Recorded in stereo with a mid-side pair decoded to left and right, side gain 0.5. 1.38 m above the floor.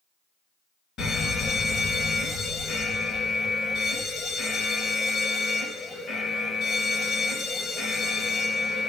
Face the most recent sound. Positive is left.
turn(degrees=55)